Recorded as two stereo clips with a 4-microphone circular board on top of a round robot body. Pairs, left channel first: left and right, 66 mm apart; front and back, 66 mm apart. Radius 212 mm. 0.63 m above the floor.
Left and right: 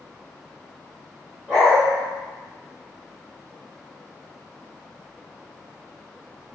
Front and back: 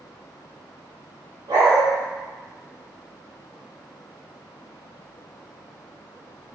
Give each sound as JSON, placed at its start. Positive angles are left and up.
{"t": 1.5, "sound": "a dog barking", "azimuth_deg": -175, "distance_m": 0.8}